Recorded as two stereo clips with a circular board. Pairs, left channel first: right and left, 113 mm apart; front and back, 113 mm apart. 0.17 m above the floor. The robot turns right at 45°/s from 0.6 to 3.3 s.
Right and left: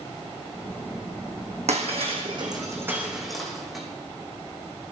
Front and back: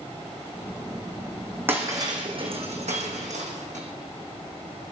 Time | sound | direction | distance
1.7 | breaking glass | 110° left | 4 m